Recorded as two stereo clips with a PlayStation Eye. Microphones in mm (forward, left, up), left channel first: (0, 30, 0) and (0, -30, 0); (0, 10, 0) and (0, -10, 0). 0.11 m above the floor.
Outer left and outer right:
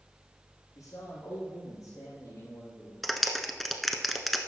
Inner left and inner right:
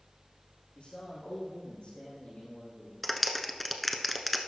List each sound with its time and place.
0.8 s a man speaking: 75° left (ahead or behind), 5.5 m; by 2.9 s 65° left (ahead or behind), 5 m
3.0 s a clap: centre (ahead or behind), 0.9 m